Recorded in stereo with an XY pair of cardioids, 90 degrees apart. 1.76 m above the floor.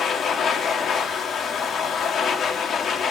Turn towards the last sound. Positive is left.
turn(degrees=70)